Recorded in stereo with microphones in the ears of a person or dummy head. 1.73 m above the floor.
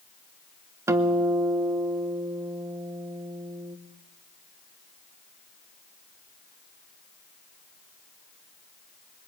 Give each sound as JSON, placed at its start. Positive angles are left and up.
{"t": 0.9, "sound": "a guitar", "side_deg": -10, "distance_m": 1.2}